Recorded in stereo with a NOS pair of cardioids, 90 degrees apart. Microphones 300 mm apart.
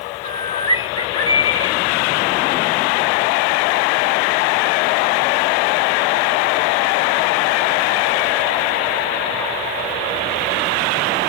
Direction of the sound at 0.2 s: 15° left.